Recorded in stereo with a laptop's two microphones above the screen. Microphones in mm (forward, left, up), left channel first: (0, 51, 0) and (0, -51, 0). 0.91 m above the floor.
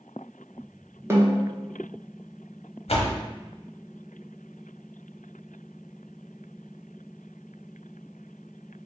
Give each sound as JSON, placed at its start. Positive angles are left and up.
{"t": 1.1, "sound": "a snare drum", "side_deg": -25, "distance_m": 0.7}
{"t": 2.9, "sound": "a door slam", "side_deg": 80, "distance_m": 0.5}